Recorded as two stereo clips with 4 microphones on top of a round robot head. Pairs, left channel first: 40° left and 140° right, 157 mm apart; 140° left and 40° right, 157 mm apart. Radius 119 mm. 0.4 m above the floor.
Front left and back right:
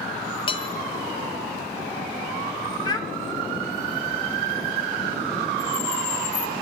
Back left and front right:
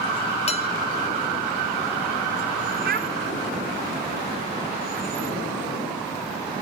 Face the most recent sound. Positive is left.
turn(degrees=-25)